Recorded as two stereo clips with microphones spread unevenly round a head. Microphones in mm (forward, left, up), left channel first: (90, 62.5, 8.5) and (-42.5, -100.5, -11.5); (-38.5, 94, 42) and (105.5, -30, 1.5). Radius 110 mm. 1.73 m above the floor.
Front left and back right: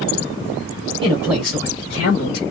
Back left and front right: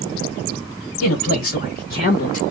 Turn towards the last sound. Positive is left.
turn(degrees=95)